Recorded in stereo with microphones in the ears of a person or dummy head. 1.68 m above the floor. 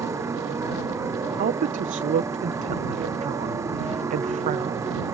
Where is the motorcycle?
20° right (ahead or behind).